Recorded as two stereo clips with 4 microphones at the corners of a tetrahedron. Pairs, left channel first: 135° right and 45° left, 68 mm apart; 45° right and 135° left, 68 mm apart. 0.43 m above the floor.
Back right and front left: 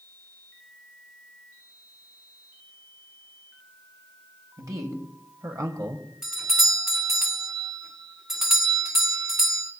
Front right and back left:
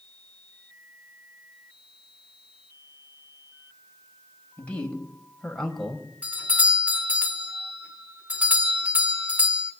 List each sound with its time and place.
4.6 s a man speaking: 25° left, 2.5 m; by 6.1 s 45° left, 1.7 m
6.2 s a doorbell: 120° left, 1.3 m